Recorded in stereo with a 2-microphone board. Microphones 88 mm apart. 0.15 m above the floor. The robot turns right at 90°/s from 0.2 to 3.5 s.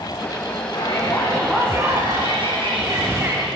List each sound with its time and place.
0.7 s a shout: 120° left, 9 m; by 3.5 s 5° left, 9 m